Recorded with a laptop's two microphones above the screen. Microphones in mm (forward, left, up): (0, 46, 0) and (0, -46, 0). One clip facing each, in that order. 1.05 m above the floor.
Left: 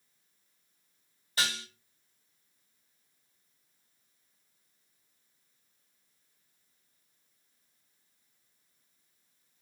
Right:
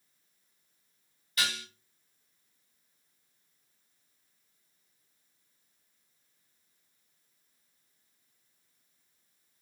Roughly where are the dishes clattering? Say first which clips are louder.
Even; left.